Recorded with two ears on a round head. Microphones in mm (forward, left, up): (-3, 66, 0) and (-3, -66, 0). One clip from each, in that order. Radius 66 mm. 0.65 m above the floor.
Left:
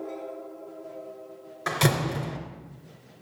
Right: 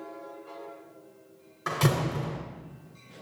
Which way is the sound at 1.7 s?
20° left (ahead or behind).